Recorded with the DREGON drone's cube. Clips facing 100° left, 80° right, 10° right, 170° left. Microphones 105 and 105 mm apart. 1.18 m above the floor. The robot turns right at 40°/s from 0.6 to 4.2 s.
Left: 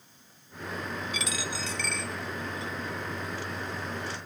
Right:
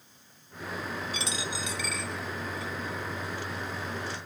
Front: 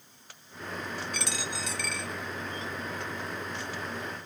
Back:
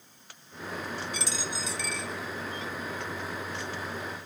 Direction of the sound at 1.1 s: 25° right.